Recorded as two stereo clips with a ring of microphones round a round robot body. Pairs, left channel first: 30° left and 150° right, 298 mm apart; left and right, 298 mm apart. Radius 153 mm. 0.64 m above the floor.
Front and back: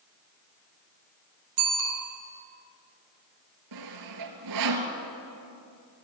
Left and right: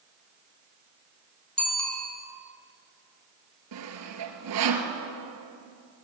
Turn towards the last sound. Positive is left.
turn(degrees=-130)